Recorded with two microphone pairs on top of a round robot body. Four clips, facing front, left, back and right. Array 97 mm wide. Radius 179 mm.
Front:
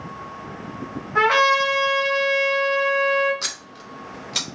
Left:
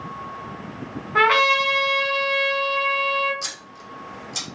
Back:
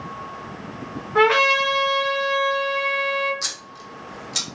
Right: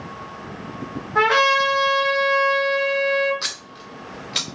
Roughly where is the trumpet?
Left.